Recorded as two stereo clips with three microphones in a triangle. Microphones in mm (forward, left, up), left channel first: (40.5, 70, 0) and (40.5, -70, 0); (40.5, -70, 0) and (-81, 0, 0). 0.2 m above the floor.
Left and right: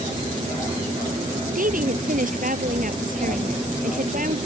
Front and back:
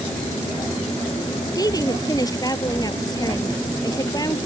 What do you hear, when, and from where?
1.6 s a woman speaking: 90° right